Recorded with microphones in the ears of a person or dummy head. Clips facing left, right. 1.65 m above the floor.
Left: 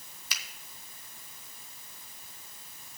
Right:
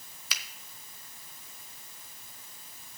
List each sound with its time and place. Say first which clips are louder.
0.3 s a finger snap: right 1 dB; 55° right (ahead or behind), 0.5 m